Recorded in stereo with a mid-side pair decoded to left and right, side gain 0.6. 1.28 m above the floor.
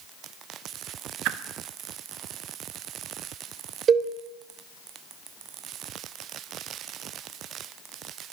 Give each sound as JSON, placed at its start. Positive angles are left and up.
{"t": 1.2, "sound": "a whoosh", "azimuth_deg": -65, "distance_m": 1.3}
{"t": 3.9, "sound": "a cowbell", "azimuth_deg": -40, "distance_m": 3.0}